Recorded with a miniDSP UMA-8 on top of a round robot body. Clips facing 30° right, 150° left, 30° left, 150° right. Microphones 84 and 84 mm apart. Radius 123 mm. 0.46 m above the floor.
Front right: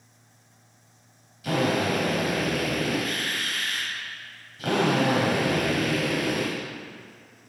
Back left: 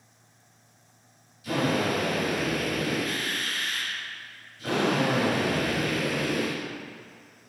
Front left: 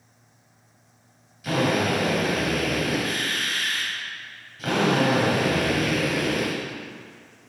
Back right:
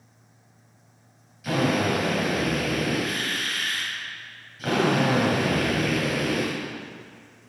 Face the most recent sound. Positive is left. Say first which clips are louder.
# front right 2 dB, front left 1 dB
turn(degrees=-60)